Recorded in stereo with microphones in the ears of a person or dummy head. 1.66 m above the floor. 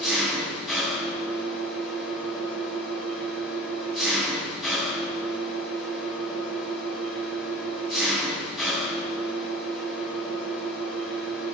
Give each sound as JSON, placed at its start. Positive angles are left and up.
{"t": 0.0, "sound": "an engine running", "side_deg": 0, "distance_m": 9.5}